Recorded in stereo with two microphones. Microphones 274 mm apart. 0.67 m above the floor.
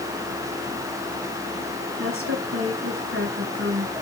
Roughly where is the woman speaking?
Right.